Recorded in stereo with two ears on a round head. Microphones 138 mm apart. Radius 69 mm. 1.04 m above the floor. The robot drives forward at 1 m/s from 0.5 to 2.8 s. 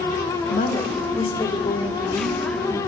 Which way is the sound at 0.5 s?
55° left (ahead or behind).